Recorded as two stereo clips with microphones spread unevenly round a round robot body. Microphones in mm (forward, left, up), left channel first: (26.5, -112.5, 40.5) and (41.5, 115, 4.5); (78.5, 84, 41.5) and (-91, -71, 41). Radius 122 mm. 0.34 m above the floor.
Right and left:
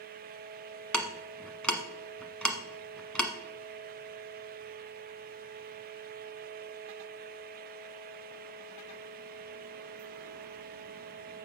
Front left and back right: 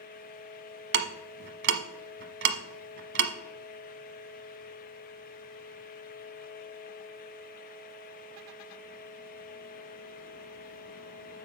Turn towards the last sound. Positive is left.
turn(degrees=180)